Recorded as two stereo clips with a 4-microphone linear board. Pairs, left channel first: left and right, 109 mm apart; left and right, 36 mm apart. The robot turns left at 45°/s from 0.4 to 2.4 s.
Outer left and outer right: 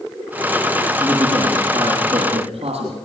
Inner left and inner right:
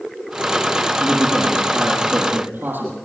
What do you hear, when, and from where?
1.0 s a man speaking: straight ahead, 8 m; by 3.0 s 65° right, 8 m